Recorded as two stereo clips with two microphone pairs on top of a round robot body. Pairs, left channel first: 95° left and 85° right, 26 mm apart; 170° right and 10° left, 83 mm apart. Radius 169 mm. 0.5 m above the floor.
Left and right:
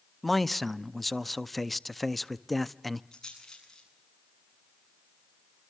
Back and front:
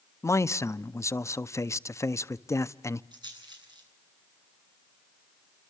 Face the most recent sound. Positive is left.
turn(degrees=30)